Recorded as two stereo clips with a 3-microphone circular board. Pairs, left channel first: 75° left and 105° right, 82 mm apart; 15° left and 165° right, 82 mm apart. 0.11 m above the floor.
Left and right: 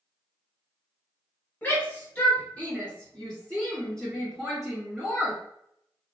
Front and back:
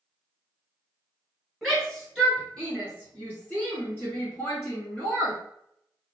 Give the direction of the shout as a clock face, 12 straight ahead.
9 o'clock.